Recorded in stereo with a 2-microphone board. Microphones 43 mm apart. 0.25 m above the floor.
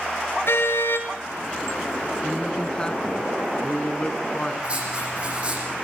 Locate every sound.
0.5 s a car horn: 65° left (ahead or behind), 2.5 m
2.2 s a man speaking: 20° left (ahead or behind), 2.5 m
4.6 s writing: 25° right (ahead or behind), 9 m